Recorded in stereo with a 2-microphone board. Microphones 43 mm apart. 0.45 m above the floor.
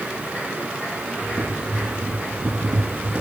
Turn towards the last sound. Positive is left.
turn(degrees=-45)  # may be behind; listen again after turning